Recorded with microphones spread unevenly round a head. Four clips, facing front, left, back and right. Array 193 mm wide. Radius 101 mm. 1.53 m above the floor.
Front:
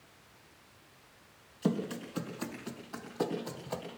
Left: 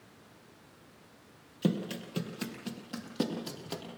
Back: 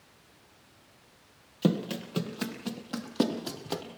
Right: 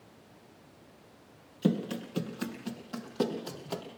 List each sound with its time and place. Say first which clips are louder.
1.6 s running footsteps: right 2 dB, back 4 dB; 160° left, 3.5 m; by 3.8 s 170° left, 4.5 m